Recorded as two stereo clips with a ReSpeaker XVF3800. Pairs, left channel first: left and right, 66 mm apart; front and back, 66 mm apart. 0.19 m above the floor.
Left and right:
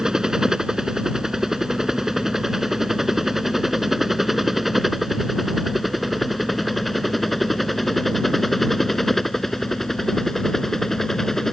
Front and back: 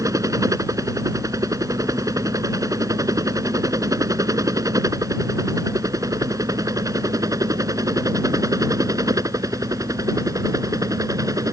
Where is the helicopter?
170° right; by 11.5 s 175° left.